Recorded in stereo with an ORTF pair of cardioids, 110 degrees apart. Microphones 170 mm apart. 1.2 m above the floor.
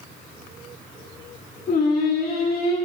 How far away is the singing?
About 6 m.